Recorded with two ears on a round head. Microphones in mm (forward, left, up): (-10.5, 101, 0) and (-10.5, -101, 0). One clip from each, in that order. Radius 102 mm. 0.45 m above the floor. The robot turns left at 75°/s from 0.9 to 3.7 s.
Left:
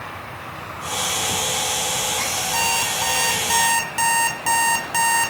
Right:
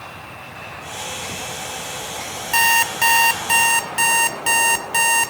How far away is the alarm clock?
About 2 m.